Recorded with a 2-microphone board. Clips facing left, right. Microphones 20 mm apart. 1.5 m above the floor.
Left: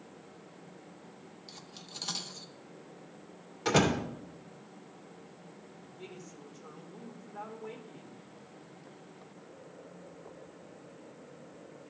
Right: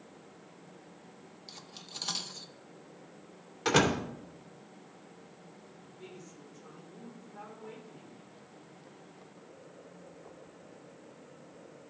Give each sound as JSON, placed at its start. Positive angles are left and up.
{"t": 1.5, "sound": "cutlery clinking", "side_deg": -10, "distance_m": 0.5}
{"t": 3.6, "sound": "a door slam", "side_deg": -15, "distance_m": 2.5}
{"t": 5.8, "sound": "a woman speaking", "side_deg": 20, "distance_m": 2.0}